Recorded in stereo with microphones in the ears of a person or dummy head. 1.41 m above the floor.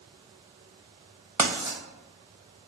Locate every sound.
1.4 s writing: 10° right (ahead or behind), 0.8 m